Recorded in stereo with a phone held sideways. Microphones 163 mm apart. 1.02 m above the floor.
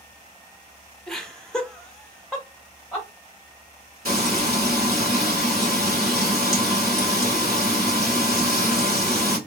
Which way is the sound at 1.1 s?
5° left (ahead or behind).